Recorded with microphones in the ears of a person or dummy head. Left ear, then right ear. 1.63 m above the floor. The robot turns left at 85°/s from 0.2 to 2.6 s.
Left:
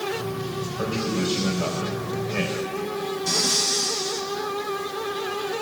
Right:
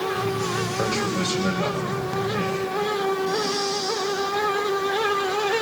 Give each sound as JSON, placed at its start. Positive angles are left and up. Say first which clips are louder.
{"t": 0.8, "sound": "a man speaking", "louder": "even", "azimuth_deg": -85, "distance_m": 3.0}
{"t": 3.3, "sound": "breathing", "louder": "left 2 dB", "side_deg": 55, "distance_m": 3.5}